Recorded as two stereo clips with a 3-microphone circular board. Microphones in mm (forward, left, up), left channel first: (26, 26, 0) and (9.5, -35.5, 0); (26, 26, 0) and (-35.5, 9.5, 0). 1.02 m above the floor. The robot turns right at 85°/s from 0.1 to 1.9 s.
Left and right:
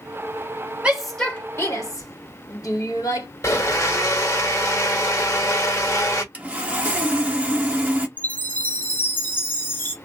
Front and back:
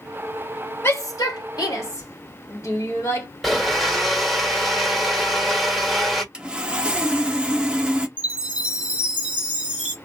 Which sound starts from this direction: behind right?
Sawing, at 6.3 s.